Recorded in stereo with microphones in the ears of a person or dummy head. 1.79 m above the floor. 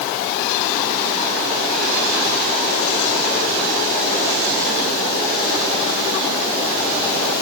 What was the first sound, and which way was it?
Only background noise.